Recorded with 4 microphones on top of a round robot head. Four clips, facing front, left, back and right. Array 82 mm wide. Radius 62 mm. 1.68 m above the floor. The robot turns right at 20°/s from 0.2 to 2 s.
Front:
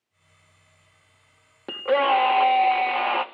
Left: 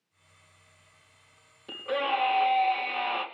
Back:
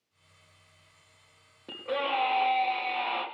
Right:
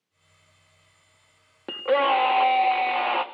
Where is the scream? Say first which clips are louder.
Right 8 dB, front 10 dB; 45° right, 2.5 m; by 3.2 s 40° right, 2.5 m.